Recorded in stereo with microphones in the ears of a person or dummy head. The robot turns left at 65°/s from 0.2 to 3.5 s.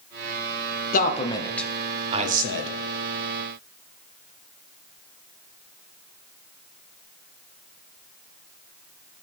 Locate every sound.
0.9 s a man speaking: 45° left (ahead or behind), 0.9 m; by 2.7 s 70° right (ahead or behind), 0.9 m